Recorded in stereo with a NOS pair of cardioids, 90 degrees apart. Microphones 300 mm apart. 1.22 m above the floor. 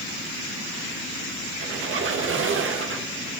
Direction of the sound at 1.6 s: 45° right.